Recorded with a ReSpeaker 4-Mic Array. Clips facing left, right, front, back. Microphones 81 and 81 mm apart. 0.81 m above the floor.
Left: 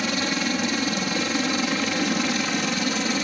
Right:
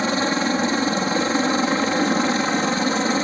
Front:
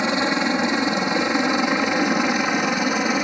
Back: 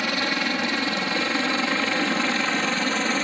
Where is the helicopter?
55° right; by 3.2 s 70° right.